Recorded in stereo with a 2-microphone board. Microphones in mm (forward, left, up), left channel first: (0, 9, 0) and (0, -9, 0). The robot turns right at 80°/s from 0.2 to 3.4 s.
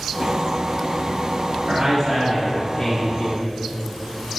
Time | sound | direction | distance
1.7 | a man speaking | 35° right | 1.7 m